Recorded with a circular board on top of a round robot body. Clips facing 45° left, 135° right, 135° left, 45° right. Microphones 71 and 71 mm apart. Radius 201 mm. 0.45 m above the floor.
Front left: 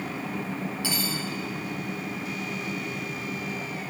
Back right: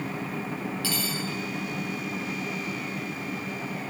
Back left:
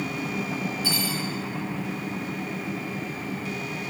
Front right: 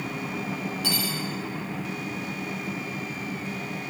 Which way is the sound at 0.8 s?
25° right.